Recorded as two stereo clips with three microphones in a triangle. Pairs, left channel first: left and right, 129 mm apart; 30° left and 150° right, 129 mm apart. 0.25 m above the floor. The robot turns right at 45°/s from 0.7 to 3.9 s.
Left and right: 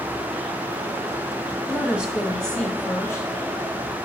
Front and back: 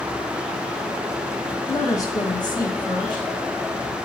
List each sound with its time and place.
1.7 s a woman speaking: 25° right, 1.4 m; by 3.3 s 45° left, 1.4 m